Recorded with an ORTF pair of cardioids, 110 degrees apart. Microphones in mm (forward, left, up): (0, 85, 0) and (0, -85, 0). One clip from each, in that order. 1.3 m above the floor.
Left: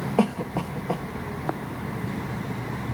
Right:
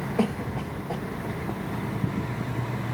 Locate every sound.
0.2 s a cough: 65° left, 1.5 m